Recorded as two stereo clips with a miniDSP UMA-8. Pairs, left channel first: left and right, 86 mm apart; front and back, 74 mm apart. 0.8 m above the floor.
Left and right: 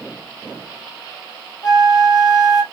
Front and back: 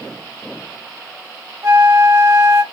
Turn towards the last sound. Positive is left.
turn(degrees=130)